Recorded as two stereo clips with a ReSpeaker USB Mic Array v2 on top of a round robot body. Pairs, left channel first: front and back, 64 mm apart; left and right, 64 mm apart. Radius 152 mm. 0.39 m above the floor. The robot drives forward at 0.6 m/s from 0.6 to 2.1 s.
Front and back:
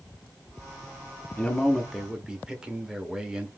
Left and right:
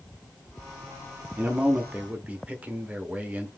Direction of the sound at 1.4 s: 50° right.